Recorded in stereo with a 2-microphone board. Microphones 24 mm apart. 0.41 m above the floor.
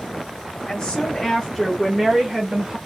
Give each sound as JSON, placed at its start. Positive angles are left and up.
{"t": 0.7, "sound": "a woman speaking", "side_deg": 35, "distance_m": 1.7}